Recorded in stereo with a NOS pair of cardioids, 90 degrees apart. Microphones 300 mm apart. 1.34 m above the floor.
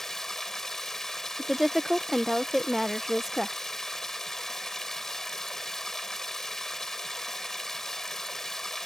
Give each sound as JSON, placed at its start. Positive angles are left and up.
{"t": 0.0, "sound": "running water", "azimuth_deg": 0}
{"t": 1.4, "sound": "a woman speaking", "azimuth_deg": 0}